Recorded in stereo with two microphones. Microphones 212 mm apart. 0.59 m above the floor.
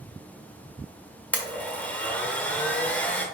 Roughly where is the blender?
Centre.